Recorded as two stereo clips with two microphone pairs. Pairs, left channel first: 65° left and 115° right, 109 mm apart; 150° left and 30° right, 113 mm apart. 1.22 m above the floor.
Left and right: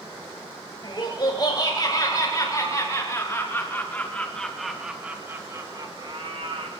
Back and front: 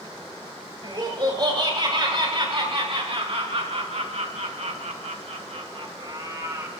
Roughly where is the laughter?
Ahead.